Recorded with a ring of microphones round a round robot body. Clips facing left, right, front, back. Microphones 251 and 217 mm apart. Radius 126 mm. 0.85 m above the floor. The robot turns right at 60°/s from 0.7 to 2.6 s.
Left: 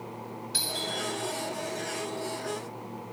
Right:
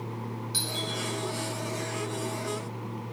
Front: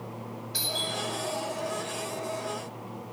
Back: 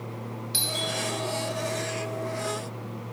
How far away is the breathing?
No breathing in this recording.